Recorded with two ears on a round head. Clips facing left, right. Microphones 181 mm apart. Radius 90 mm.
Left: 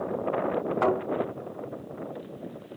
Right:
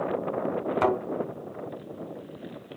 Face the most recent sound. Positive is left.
turn(degrees=-40)  # may be behind; listen again after turning